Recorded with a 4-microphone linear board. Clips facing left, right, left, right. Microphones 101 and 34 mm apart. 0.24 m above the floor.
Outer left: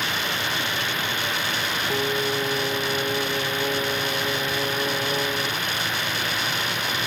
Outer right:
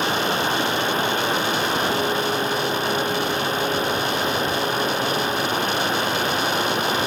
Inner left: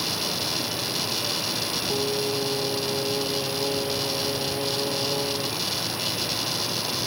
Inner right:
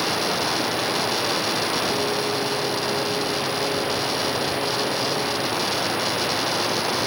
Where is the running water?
40° right (ahead or behind).